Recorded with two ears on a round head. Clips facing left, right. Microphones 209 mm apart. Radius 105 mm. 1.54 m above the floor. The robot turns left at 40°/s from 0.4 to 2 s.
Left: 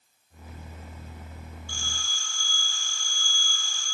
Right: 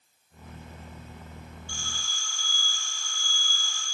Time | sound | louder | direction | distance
1.7 | a phone ringing | even | 35° left (ahead or behind) | 1.9 m